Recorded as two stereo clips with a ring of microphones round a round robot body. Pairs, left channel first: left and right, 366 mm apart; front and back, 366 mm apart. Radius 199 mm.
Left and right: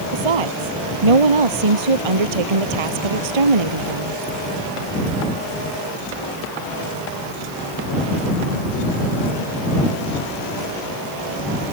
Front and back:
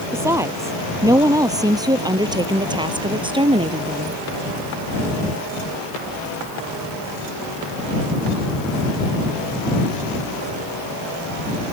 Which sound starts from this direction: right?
A woman speaking, at 0.1 s.